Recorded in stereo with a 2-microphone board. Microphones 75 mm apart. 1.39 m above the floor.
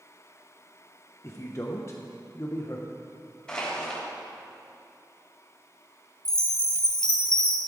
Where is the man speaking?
35° left (ahead or behind), 0.8 m.